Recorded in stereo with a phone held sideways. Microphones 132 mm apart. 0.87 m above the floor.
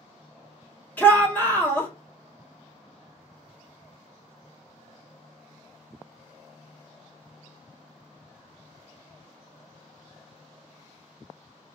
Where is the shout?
15° left (ahead or behind), 0.9 m.